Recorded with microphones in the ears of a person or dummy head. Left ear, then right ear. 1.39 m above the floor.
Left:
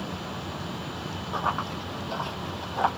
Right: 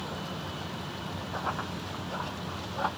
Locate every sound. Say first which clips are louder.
1.3 s running footsteps: left 6 dB; 55° left (ahead or behind), 2.5 m; by 2.9 s 45° left (ahead or behind), 1.9 m